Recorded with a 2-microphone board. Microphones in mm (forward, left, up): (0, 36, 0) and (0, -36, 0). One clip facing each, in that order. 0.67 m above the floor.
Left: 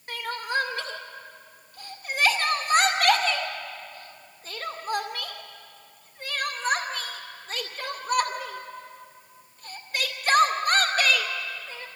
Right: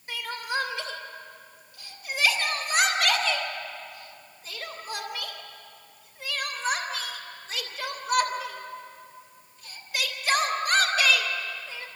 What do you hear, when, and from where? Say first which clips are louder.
0.1 s crying: left 2 dB; 50° left (ahead or behind), 2.5 m